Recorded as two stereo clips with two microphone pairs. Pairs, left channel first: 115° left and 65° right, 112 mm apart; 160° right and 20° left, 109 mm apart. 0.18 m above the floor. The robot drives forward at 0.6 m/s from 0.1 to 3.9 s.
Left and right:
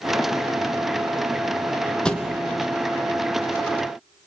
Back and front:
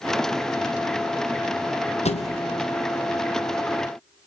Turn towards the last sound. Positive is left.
turn(degrees=-170)